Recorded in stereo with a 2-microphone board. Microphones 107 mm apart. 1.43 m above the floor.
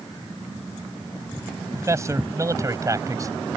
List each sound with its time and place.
1.8 s a man speaking: 30° right (ahead or behind)